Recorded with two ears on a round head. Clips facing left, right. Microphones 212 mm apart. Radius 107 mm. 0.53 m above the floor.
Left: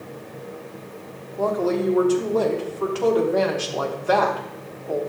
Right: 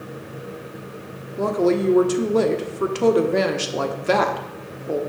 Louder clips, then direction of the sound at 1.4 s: Right 3 dB; 30° right (ahead or behind).